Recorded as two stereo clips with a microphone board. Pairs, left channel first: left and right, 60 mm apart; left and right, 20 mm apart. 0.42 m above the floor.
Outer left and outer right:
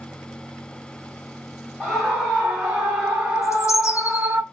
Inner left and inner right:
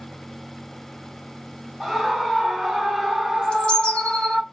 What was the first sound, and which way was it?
A scream, 10° right (ahead or behind).